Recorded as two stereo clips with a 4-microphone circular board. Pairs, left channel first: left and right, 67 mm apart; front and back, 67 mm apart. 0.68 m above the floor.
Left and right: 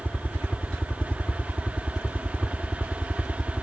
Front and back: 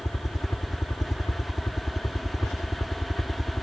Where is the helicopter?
25° left; by 3.6 s 10° left.